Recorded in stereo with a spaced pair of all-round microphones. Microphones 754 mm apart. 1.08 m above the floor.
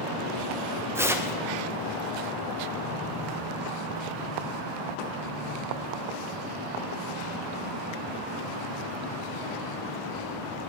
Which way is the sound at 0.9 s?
5° right (ahead or behind).